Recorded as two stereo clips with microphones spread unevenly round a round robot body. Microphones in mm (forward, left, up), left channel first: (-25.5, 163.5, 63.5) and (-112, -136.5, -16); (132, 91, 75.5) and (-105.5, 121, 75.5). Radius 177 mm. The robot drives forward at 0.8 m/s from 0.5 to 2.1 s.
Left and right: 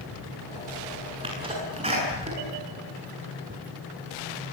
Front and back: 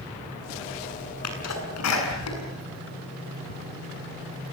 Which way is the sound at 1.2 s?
30° right.